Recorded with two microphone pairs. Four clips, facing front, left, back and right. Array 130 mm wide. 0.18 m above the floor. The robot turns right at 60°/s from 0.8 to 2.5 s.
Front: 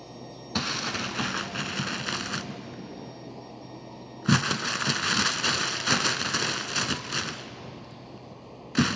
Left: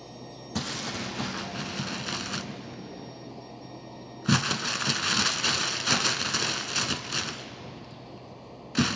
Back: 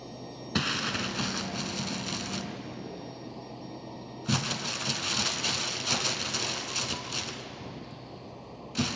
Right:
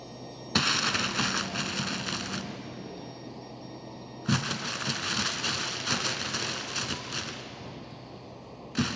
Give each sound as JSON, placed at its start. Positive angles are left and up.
{"t": 0.6, "sound": "crumpling", "azimuth_deg": -85, "distance_m": 1.2}